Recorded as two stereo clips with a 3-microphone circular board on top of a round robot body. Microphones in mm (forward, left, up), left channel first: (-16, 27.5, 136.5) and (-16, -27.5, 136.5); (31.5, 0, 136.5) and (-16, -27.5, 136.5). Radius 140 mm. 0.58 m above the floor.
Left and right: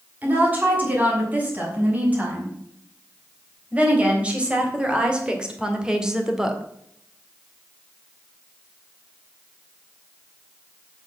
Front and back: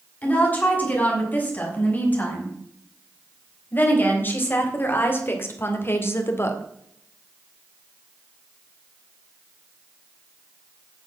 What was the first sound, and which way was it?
A woman speaking, 30° right.